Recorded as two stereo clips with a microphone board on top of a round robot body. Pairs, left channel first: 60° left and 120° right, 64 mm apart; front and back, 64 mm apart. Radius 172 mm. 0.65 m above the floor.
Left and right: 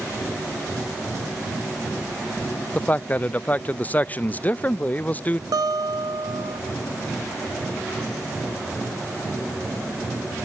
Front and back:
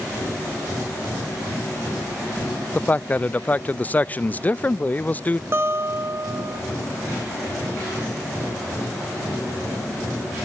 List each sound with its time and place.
2.8 s a man speaking: 30° left, 0.5 m
5.5 s a guitar: 130° right, 1.1 m